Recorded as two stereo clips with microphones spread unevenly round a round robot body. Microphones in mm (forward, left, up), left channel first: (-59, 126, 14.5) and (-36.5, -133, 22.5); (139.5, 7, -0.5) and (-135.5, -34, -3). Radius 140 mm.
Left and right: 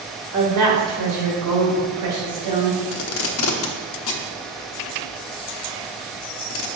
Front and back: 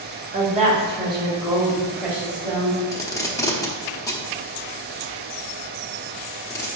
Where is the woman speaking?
110° right, 2 m; by 2.8 s 80° right, 3 m.